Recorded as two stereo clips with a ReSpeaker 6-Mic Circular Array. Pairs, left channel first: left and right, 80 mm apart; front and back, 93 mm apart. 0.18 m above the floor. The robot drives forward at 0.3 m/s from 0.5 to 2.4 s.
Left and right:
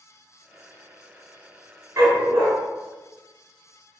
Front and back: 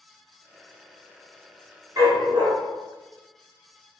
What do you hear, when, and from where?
2.0 s a dog barking: 130° right, 0.7 m; by 2.5 s 140° right, 0.8 m